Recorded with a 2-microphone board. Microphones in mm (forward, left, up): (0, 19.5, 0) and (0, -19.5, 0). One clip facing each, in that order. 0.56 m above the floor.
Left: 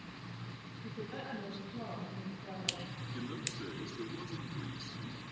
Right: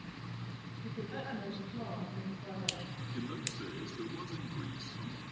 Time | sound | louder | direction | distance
0.8 | a woman speaking | right 2 dB | 25° right (ahead or behind) | 9 m
3.1 | a man speaking | right 1 dB | 45° right (ahead or behind) | 5.5 m